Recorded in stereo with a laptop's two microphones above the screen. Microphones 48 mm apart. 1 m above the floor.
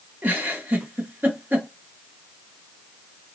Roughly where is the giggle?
Right.